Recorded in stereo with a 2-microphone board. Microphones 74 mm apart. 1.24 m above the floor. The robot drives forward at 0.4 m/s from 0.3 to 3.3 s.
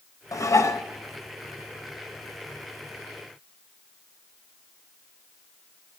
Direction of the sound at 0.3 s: 50° left (ahead or behind).